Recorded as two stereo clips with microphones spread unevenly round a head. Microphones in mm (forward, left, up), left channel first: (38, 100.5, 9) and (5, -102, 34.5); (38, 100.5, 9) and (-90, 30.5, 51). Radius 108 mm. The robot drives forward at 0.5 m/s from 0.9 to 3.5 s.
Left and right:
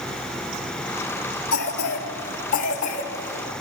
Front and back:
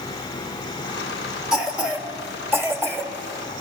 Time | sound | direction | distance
1.5 | a cough | 125° left | 2.5 m